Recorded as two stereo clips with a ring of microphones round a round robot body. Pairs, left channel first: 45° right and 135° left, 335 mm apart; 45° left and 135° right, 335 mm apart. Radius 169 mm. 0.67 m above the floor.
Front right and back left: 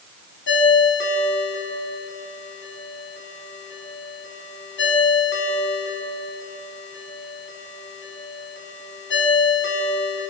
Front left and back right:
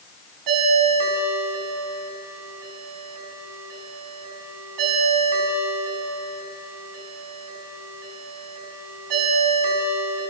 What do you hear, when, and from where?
0.5 s a ringtone: 105° right, 4.5 m